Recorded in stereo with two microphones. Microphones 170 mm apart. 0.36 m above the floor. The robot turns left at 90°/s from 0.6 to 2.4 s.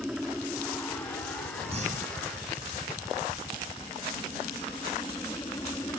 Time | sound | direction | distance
0.0 | a helicopter | straight behind | ?
1.7 | breathing | 40° right | ?